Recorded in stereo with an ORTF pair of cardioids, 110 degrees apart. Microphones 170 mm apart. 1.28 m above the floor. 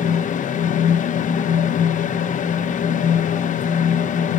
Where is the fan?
50° left, 0.7 m.